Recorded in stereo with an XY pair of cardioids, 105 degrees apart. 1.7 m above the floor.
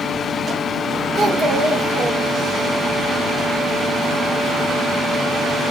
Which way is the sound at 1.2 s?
60° right.